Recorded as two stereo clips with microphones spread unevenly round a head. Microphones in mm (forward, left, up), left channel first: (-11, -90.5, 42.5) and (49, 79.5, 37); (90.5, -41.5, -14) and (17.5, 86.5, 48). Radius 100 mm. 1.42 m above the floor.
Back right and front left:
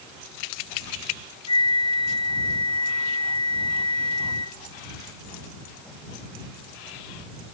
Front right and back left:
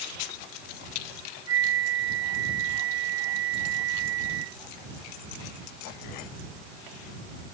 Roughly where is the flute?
Behind.